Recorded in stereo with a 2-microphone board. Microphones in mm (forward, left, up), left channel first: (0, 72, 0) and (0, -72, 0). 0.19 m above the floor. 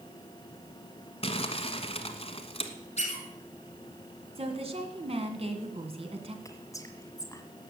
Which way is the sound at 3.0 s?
50° left (ahead or behind).